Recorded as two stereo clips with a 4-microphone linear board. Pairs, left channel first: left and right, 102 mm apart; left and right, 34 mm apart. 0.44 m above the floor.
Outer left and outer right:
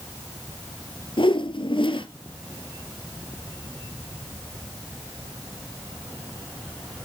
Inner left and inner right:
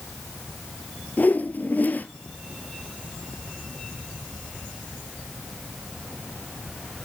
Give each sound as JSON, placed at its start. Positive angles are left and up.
{"t": 1.2, "sound": "a whoosh", "side_deg": 55, "distance_m": 1.5}